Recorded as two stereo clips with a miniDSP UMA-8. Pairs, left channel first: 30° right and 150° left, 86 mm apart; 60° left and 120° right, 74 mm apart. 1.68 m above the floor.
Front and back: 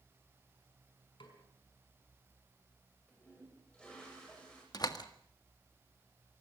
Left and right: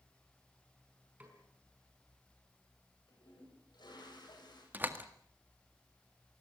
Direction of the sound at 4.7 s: 60° right.